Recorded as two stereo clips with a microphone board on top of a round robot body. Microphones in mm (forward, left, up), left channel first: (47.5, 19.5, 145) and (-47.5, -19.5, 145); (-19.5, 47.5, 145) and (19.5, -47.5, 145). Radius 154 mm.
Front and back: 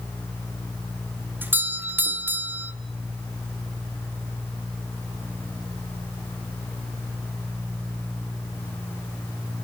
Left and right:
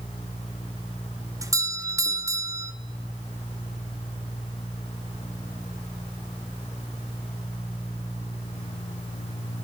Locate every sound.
1.4 s a doorbell: 100° right, 1.5 m